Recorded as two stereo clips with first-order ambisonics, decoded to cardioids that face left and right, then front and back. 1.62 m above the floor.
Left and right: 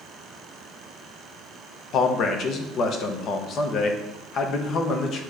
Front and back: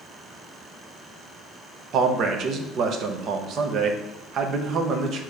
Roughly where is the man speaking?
Behind left.